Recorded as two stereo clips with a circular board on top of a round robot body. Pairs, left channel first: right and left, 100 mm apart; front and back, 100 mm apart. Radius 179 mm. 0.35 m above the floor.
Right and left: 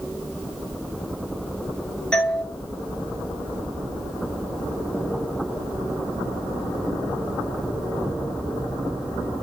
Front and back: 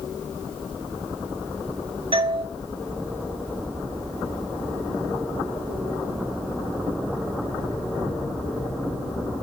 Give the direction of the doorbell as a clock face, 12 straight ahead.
6 o'clock.